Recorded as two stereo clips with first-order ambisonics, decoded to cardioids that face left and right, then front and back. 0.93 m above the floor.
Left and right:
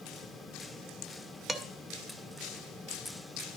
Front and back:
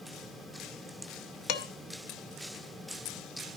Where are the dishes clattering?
15° right, 0.8 m.